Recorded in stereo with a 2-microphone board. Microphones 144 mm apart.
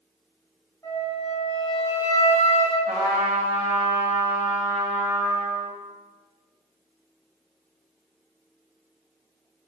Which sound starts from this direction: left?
A flute, at 0.8 s.